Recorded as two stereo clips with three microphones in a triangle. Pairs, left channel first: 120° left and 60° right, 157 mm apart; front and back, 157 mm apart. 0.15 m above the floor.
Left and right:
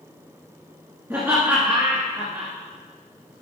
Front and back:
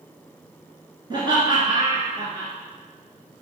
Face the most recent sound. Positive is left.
turn(degrees=-130)